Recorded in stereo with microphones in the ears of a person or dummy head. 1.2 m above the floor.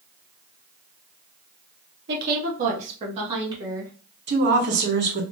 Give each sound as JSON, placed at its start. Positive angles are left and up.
{"t": 2.1, "sound": "a woman speaking", "side_deg": -55, "distance_m": 0.9}
{"t": 4.3, "sound": "a woman speaking", "side_deg": -60, "distance_m": 1.2}